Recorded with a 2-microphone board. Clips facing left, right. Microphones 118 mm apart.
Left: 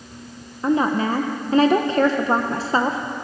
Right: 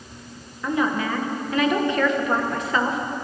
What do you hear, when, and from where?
0.6 s a woman speaking: 30° left (ahead or behind), 0.8 m